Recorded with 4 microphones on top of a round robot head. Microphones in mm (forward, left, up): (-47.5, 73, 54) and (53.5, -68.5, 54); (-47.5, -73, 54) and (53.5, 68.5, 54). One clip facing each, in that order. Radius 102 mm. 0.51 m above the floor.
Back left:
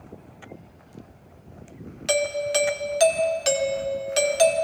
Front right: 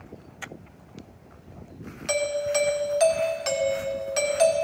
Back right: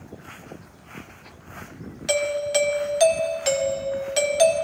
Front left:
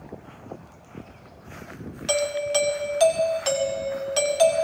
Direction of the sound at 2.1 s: 165° left.